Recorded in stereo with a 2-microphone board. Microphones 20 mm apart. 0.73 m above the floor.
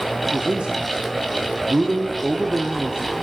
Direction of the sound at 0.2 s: 60° right (ahead or behind).